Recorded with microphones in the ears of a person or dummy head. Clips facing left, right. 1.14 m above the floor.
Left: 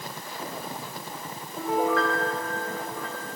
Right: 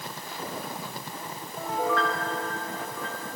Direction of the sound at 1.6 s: 65° left (ahead or behind).